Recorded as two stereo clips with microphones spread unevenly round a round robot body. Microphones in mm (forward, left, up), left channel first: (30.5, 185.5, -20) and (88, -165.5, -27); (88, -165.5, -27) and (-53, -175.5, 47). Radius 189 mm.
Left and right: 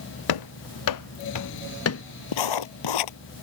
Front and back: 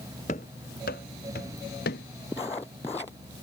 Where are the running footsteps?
75° left; by 2.0 s 45° left.